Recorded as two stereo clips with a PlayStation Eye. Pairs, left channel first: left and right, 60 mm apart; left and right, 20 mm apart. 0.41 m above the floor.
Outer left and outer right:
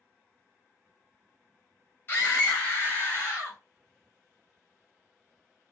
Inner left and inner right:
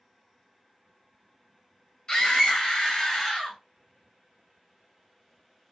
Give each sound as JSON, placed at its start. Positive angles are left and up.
{"t": 2.1, "sound": "a scream", "side_deg": 25, "distance_m": 2.5}